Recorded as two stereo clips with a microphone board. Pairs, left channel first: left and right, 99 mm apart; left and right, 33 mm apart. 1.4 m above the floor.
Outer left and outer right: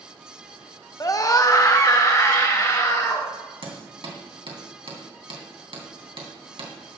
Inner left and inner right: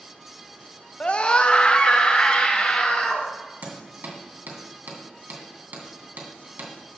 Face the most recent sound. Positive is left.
turn(degrees=-65)  # may be behind; listen again after turning